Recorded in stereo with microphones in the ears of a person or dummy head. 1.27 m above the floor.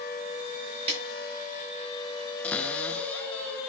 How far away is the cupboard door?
About 0.9 m.